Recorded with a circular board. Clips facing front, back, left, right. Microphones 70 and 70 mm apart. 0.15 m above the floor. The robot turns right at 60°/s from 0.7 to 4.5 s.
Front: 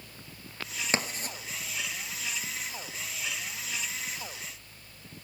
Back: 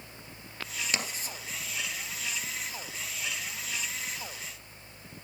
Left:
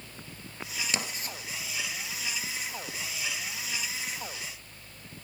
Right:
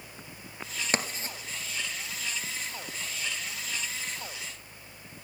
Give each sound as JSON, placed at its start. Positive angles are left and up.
{"t": 0.9, "sound": "writing", "azimuth_deg": -50, "distance_m": 2.5}